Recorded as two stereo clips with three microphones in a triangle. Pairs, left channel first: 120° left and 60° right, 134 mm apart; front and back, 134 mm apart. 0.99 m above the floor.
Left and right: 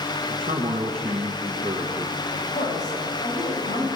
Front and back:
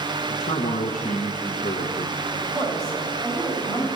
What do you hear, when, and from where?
0.3 s a man speaking: 15° right, 0.8 m
2.3 s a woman speaking: 110° left, 4 m